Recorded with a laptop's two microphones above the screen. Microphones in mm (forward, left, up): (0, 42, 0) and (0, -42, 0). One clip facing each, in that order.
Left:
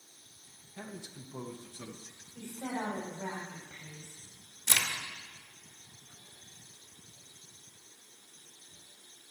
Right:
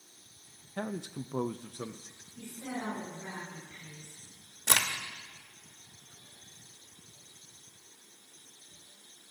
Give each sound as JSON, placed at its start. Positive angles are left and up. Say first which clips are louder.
{"t": 0.8, "sound": "a man speaking", "louder": "right 9 dB", "side_deg": -60, "distance_m": 0.7}
{"t": 2.4, "sound": "a woman speaking", "louder": "left 2 dB", "side_deg": 60, "distance_m": 7.0}
{"t": 4.7, "sound": "a crack", "louder": "right 4 dB", "side_deg": -55, "distance_m": 1.0}